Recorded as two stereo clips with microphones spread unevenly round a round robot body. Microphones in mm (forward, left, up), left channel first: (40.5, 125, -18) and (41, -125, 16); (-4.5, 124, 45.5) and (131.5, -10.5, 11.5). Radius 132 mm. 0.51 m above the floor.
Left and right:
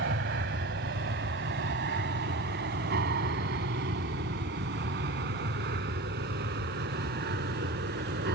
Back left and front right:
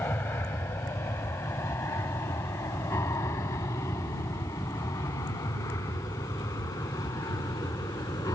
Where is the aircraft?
140° right; by 8.3 s 145° right.